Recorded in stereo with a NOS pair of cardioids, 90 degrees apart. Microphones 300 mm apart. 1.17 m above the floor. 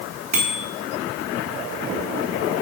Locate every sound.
0.3 s a bicycle bell: 20° right, 8.5 m